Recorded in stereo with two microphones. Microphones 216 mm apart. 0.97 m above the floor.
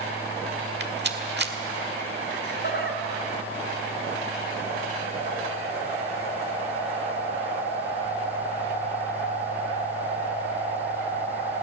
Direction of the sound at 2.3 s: 50° left (ahead or behind).